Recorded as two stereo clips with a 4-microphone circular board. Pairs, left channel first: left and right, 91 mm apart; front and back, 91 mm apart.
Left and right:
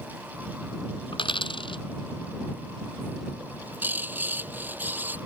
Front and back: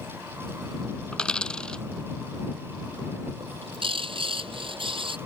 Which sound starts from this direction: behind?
A bird, at 3.4 s.